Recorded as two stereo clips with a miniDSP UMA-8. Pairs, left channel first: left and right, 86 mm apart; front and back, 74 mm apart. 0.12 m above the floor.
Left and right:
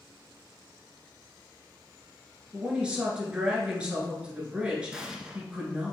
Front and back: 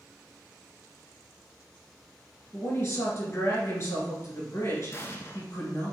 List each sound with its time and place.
2.5 s a woman speaking: 20° right, 1.4 m
4.9 s an explosion: 15° right, 0.6 m